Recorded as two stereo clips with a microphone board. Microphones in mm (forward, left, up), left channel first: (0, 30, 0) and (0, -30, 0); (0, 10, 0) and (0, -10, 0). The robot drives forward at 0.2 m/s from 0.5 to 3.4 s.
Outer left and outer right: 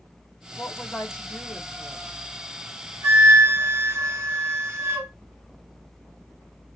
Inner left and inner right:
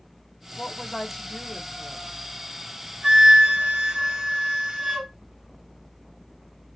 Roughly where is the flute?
Right.